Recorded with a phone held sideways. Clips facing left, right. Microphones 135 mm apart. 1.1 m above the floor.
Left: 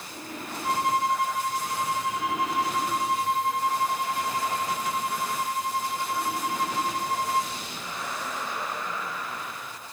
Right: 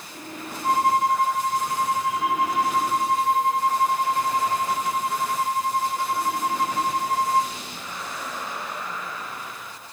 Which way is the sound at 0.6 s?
50° right (ahead or behind).